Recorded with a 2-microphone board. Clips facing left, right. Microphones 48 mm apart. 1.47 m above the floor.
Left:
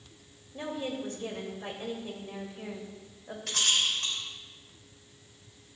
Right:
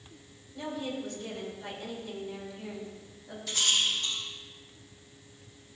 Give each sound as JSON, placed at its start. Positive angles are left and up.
{"t": 0.5, "sound": "a woman speaking", "side_deg": 35, "distance_m": 3.0}
{"t": 3.5, "sound": "a rattle", "side_deg": 70, "distance_m": 3.5}